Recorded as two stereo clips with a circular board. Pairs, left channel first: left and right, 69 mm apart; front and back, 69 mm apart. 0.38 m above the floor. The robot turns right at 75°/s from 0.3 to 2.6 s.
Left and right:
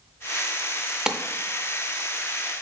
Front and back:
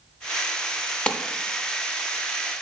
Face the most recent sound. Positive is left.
turn(degrees=85)